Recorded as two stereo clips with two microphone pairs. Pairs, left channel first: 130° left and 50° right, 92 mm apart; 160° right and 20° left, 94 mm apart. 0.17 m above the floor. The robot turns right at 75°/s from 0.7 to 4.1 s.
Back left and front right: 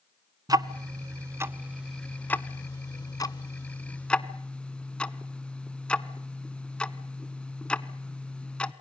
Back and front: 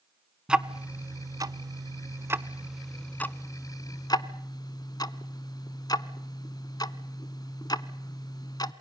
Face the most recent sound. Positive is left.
turn(degrees=-155)